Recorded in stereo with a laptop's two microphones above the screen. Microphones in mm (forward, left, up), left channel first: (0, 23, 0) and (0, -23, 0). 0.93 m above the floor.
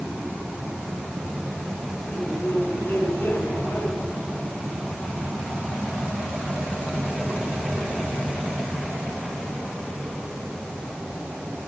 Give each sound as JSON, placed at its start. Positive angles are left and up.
{"t": 2.1, "sound": "a man speaking", "side_deg": 65, "distance_m": 8.0}